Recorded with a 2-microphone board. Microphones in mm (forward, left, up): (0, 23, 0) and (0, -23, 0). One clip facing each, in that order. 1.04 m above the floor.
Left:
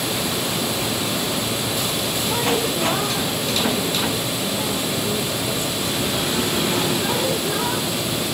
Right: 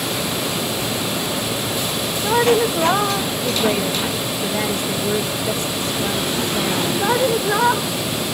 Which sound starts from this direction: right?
A woman speaking, at 2.2 s.